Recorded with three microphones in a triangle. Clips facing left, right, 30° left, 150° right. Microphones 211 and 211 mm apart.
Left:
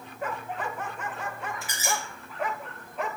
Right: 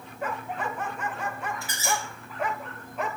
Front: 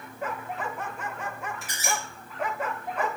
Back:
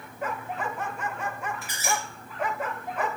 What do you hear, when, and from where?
1.6 s a squeak: 20° left, 1.4 m